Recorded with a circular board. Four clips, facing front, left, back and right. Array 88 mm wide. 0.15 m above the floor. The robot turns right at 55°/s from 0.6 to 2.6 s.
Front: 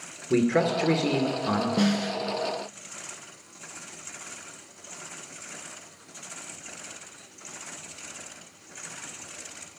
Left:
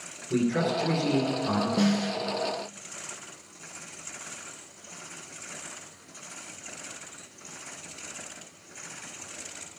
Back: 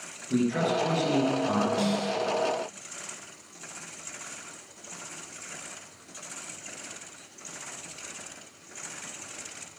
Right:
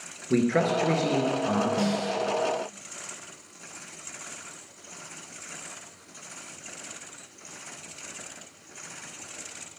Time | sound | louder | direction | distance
0.3 | a man speaking | right 3 dB, front 3 dB | 50° right | 2.0 m
1.8 | a snare drum | left 1 dB, front 2 dB | 15° left | 1.1 m